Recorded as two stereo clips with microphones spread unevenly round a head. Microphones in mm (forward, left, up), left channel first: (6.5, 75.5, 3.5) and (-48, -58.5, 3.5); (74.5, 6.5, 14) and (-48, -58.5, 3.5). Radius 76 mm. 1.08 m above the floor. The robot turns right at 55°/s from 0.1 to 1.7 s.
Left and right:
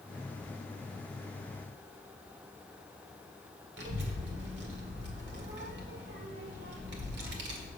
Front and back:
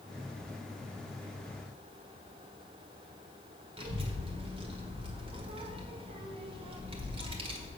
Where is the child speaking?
100° right, 1.8 m.